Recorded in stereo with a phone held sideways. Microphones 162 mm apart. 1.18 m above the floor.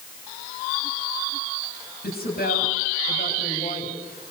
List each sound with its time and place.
2.0 s a woman speaking: 70° left (ahead or behind), 9 m